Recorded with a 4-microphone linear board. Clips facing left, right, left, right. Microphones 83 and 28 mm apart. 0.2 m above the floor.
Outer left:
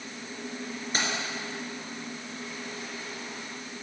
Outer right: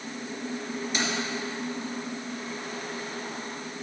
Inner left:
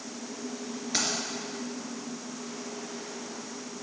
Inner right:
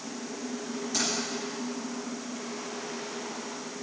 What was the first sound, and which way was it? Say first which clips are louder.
Keys jangling: even, inner left 1 dB; 40° left (ahead or behind).